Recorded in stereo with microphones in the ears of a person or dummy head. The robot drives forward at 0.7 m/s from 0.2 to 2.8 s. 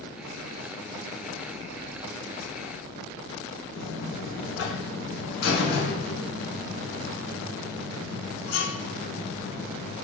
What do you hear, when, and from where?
3.8 s a buzzer: 65° left (ahead or behind), 1.0 m